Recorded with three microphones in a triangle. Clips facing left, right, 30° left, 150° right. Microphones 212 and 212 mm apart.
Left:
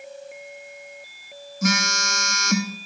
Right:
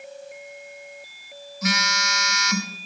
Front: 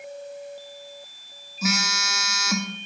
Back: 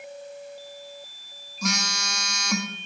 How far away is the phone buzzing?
About 0.8 m.